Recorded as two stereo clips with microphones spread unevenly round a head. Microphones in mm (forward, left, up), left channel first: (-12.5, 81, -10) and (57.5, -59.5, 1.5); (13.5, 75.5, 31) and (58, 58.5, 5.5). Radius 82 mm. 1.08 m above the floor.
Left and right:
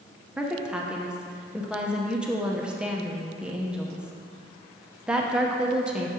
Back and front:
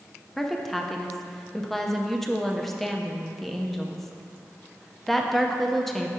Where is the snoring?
No snoring in this recording.